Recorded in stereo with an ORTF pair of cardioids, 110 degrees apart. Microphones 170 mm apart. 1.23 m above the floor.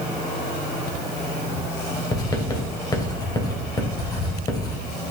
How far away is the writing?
About 2.5 m.